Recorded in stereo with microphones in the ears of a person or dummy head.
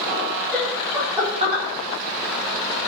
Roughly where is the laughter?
Centre.